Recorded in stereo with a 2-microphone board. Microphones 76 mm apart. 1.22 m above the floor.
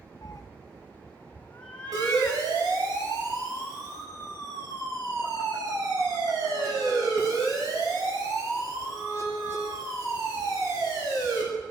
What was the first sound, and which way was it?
A cat meowing, 50° left (ahead or behind).